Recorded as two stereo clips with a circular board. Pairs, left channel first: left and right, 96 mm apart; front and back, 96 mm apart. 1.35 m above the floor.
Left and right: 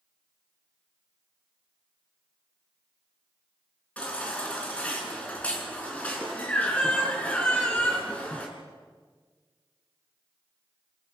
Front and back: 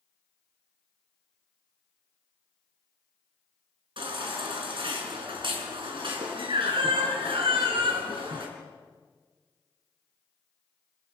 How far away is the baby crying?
About 4.5 m.